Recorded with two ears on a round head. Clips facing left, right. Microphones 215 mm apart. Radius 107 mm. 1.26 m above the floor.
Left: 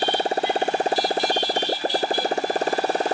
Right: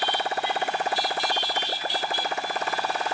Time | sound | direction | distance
0.0 | a motorcycle | 30° left (ahead or behind) | ?